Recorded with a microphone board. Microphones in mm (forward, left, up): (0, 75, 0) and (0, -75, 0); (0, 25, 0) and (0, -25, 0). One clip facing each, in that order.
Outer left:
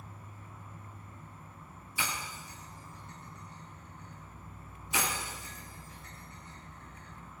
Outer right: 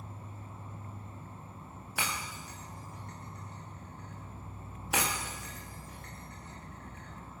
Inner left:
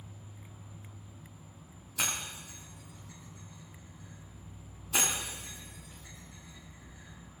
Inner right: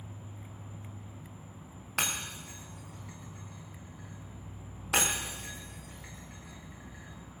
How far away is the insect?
About 1.1 m.